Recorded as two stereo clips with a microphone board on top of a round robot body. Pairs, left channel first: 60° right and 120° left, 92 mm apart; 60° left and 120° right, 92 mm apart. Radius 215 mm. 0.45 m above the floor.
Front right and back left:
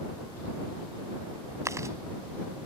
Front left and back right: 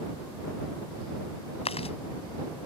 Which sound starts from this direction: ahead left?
Chewing, at 1.6 s.